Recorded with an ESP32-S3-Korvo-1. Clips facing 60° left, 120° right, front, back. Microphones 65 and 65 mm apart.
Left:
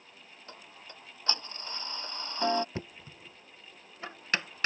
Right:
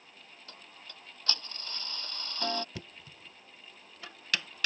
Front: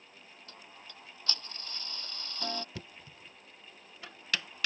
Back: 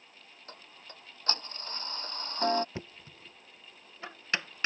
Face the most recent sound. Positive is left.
turn(degrees=120)